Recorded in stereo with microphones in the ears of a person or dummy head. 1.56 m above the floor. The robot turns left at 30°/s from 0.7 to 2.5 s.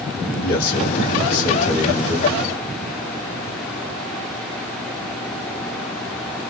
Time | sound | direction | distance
0.4 | a man speaking | 50° left | 1.2 m